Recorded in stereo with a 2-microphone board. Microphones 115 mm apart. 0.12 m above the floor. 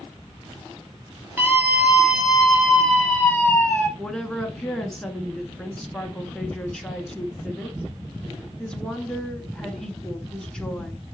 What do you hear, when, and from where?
1.4 s a scream: 20° right (ahead or behind), 3 m; by 3.9 s 10° left (ahead or behind), 4.5 m
4.0 s a woman speaking: 5° left (ahead or behind), 1.2 m